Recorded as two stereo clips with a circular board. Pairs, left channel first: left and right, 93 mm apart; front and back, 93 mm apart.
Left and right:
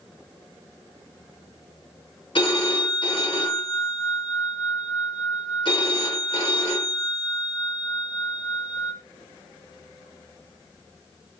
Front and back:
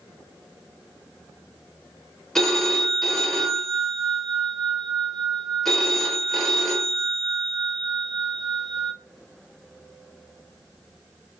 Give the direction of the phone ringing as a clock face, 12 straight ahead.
9 o'clock.